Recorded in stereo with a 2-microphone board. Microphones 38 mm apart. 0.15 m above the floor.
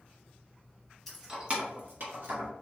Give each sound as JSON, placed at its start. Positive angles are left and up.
{"t": 1.1, "sound": "keys jangling", "side_deg": 5, "distance_m": 0.7}